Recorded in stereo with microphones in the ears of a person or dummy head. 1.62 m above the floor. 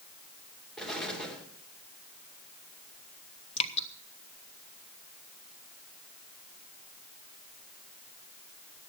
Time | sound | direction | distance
0.8 | an explosion | centre (ahead or behind) | 2.5 m
3.6 | dripping | 35° left (ahead or behind) | 1.0 m